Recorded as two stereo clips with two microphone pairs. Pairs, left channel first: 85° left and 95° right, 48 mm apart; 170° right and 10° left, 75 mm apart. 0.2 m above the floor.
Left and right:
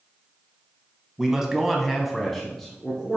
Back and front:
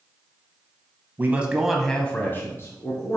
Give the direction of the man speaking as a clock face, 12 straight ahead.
1 o'clock.